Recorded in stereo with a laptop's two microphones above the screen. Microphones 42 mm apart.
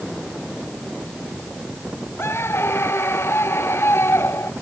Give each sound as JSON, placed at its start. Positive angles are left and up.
{"t": 2.2, "sound": "a scream", "side_deg": 80}